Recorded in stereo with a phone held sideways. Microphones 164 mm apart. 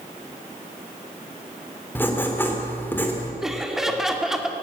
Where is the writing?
15° left (ahead or behind), 3 m.